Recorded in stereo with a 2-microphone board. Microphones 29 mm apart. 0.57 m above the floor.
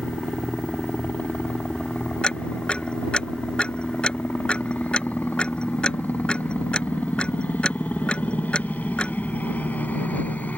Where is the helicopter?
65° left (ahead or behind).